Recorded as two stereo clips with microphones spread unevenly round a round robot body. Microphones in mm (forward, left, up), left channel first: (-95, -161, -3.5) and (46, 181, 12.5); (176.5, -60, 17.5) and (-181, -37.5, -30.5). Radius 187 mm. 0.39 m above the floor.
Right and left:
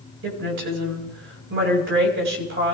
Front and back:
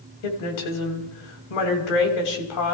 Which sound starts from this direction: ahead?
A woman speaking, at 0.2 s.